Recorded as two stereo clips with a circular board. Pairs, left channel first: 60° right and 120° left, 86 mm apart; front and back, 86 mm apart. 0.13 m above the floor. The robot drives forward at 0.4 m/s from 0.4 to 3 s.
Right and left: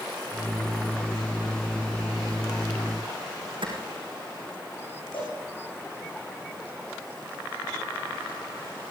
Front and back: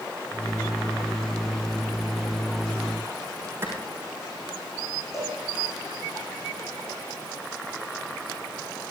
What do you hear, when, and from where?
3.6 s a clap: 120° left, 6 m
5.1 s a cowbell: 50° right, 9 m